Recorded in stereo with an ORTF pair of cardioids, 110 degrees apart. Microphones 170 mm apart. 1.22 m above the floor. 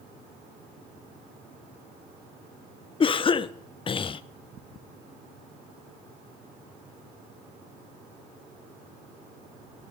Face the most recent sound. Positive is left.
turn(degrees=30)